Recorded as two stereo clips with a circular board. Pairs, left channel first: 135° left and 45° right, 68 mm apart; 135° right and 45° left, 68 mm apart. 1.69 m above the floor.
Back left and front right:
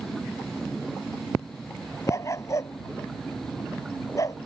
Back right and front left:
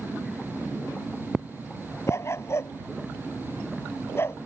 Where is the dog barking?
Straight behind; by 4.4 s 175° left.